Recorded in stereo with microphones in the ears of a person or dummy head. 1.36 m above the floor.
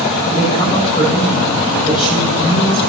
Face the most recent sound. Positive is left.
turn(degrees=25)  # may be behind; listen again after turning